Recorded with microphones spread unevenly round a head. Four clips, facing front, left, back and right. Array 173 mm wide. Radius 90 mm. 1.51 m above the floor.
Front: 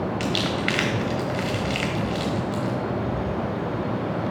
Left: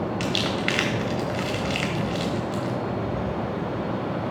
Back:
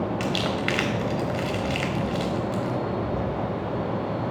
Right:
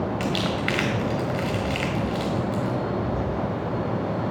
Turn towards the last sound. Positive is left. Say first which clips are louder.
# right 1 dB, front 1 dB
turn(degrees=155)